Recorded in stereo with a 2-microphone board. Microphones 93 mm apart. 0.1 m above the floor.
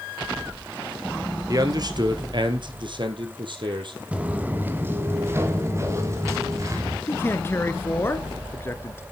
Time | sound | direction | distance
1.5 | a man speaking | 40° right (ahead or behind) | 1.6 m
4.1 | footsteps | 15° right (ahead or behind) | 1.9 m
7.1 | a man speaking | 25° left (ahead or behind) | 1.1 m